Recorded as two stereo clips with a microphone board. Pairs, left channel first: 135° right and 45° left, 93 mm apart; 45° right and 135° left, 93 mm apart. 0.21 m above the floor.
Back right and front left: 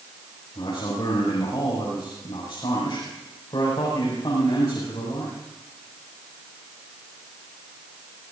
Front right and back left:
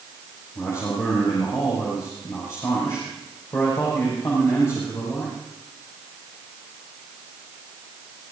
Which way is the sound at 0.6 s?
100° right.